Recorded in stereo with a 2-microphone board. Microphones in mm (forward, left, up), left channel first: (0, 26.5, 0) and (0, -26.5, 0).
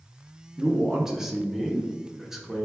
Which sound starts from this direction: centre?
A man speaking, at 0.6 s.